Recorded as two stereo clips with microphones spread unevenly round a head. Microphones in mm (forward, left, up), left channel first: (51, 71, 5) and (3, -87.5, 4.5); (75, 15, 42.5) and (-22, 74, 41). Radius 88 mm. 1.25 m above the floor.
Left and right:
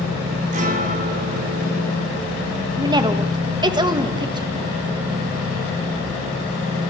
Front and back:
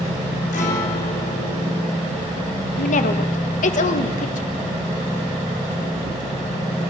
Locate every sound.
0.5 s a guitar: 60° right, 3.5 m
2.8 s a woman speaking: 40° right, 1.7 m